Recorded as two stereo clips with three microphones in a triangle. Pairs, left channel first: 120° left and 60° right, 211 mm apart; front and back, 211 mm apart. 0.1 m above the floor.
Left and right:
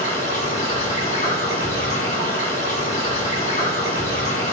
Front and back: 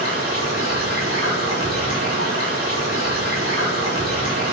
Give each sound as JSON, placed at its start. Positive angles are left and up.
{"t": 0.0, "sound": "running water", "azimuth_deg": 175, "distance_m": 1.9}